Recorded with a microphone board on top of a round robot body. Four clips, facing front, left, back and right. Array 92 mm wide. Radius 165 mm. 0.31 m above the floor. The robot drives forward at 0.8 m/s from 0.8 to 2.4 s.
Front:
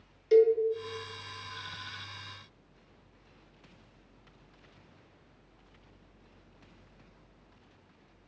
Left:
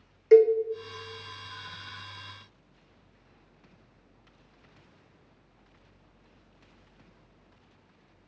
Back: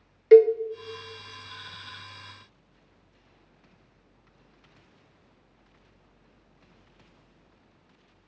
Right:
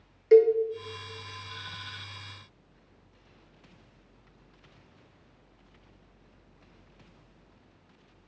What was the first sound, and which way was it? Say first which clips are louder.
A cowbell: left 1 dB, back 7 dB; 160° left.